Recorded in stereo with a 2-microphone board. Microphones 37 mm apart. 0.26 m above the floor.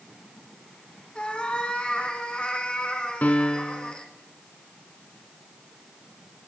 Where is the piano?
50° left (ahead or behind), 1.1 m.